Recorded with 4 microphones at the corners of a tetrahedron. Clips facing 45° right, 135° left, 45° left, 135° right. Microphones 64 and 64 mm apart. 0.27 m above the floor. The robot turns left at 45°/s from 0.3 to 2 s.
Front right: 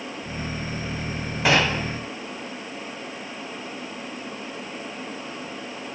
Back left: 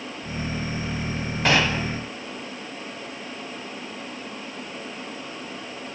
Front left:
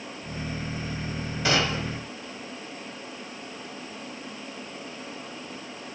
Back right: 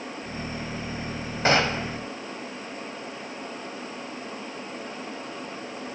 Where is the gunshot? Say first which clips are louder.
Front right 1 dB, back right 3 dB; 130° right, 1.8 m; by 2.0 s 155° right, 1.8 m.